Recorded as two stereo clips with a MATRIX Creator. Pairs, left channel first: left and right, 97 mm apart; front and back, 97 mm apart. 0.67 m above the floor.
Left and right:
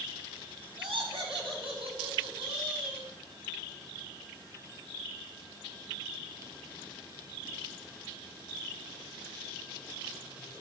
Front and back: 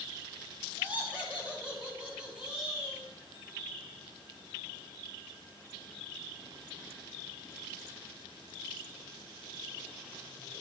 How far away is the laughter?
About 5 m.